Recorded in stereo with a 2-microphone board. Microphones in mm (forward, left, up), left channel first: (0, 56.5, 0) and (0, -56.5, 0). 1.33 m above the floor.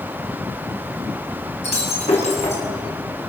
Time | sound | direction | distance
1.6 | breaking glass | 80° left | 7 m